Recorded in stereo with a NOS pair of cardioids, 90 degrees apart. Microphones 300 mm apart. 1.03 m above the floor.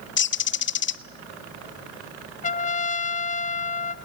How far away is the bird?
About 0.8 m.